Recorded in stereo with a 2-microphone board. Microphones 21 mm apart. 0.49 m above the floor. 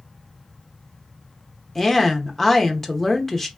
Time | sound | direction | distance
1.8 | a woman speaking | 20° left (ahead or behind) | 0.9 m